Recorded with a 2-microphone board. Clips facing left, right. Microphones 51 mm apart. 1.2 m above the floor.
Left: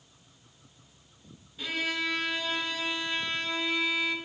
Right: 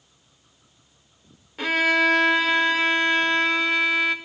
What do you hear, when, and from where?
1.6 s a violin: 85° right, 1.3 m